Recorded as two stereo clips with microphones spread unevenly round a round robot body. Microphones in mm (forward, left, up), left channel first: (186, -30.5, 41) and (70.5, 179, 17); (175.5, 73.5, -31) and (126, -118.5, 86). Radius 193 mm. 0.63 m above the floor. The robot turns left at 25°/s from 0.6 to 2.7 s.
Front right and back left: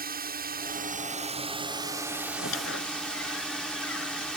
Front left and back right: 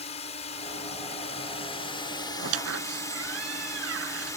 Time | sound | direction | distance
0.0 | a drone | 80° left | ?
2.4 | a squeak | 115° right | ?